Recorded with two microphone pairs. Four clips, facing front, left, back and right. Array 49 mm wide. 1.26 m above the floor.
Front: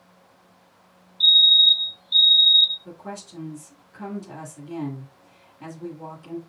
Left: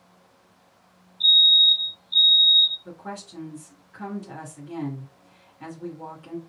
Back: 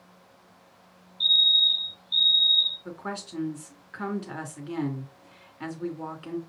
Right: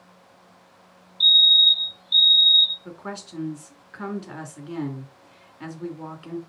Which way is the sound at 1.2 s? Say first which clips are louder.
Right 1 dB, front 6 dB; 70° right.